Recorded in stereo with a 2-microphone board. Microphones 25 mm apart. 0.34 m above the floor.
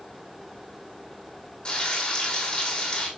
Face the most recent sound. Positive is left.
turn(degrees=45)  # may be behind; listen again after turning